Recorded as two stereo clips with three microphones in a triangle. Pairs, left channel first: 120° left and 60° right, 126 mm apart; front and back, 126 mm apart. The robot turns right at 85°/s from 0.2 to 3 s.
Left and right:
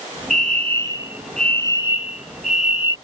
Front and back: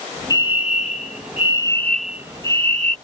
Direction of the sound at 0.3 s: 55° right.